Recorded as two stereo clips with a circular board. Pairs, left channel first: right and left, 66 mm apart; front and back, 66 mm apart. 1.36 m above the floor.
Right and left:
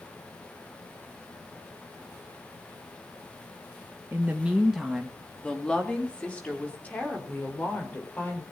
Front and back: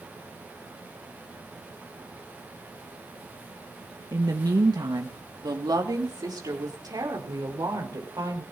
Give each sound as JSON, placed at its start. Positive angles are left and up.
{"t": 4.1, "sound": "a woman speaking", "azimuth_deg": 150, "distance_m": 1.3}